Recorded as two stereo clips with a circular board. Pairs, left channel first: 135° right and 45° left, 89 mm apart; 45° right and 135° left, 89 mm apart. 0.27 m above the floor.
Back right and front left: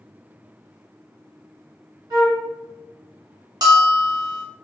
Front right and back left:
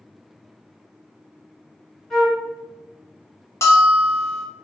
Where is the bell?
10° left, 0.9 m.